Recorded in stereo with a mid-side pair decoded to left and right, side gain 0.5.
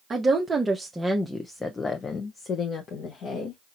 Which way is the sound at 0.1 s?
35° right.